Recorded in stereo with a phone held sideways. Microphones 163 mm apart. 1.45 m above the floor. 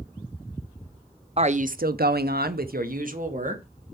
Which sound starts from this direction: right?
A woman speaking, at 1.4 s.